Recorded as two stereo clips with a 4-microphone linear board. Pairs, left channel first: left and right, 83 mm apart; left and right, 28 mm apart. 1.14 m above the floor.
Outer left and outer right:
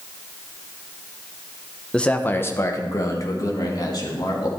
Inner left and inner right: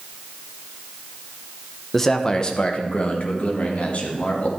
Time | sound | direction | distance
1.9 | a man speaking | 10° left (ahead or behind) | 0.8 m